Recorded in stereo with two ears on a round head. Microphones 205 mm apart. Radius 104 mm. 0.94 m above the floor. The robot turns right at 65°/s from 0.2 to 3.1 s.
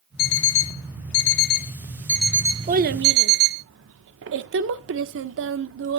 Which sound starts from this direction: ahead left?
An alarm clock, at 0.2 s.